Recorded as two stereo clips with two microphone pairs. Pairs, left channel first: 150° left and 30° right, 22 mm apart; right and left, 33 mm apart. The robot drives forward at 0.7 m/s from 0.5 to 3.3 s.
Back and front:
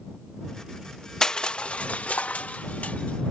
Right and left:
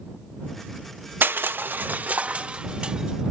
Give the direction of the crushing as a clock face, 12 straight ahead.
9 o'clock.